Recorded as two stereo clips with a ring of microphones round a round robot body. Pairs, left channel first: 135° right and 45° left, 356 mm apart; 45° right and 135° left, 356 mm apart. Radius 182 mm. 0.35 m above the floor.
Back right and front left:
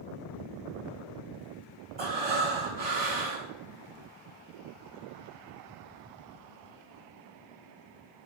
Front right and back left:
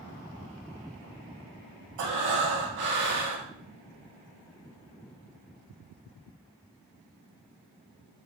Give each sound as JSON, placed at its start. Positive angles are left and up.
{"t": 2.0, "sound": "breathing", "azimuth_deg": 110, "distance_m": 0.7}